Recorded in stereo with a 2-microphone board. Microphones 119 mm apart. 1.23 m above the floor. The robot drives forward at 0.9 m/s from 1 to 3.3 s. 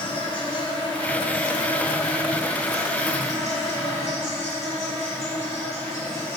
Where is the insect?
45° left (ahead or behind), 3 m; by 6.4 s 25° left (ahead or behind), 4.5 m.